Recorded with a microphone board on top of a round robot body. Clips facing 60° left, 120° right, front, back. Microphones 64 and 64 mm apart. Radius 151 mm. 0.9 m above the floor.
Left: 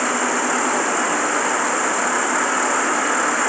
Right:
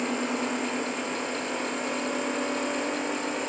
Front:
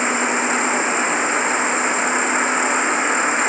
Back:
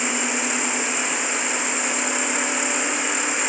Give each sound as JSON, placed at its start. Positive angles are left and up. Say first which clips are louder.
{"t": 0.0, "sound": "an insect", "louder": "left 8 dB, front 6 dB", "azimuth_deg": 55}